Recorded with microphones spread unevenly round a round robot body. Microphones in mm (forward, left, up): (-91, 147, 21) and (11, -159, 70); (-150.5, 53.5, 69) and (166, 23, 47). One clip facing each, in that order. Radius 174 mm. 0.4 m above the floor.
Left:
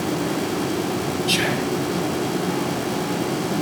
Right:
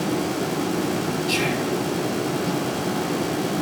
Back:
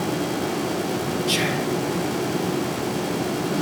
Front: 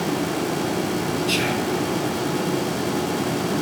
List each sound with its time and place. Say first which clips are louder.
1.3 s whispering: left 1 dB, front 1 dB; 85° left, 2 m